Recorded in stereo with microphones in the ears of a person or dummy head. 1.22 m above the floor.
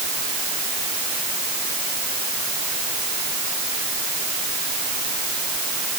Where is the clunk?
No clunk in this recording.